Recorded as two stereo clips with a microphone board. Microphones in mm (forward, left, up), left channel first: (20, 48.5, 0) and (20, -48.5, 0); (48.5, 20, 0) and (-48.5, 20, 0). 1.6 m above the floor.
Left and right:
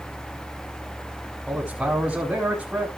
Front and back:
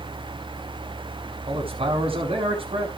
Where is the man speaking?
175° right, 4.5 m.